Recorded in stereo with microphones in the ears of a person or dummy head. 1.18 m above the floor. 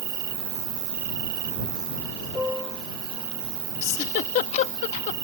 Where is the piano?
Centre (ahead or behind).